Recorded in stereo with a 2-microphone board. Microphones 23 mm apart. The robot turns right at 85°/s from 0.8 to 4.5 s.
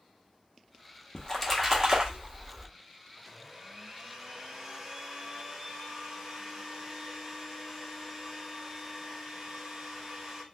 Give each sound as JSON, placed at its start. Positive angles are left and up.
{"t": 1.1, "sound": "a splash", "azimuth_deg": 150, "distance_m": 0.9}
{"t": 3.2, "sound": "a blender", "side_deg": -5, "distance_m": 1.3}